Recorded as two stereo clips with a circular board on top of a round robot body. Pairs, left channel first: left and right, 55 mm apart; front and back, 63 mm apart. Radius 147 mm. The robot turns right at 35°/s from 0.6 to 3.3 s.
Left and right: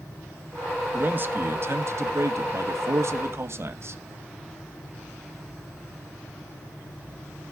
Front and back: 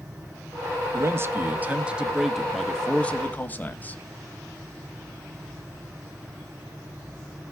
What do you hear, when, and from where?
0.9 s a man speaking: 145° right, 1.6 m; by 4.0 s 60° right, 1.6 m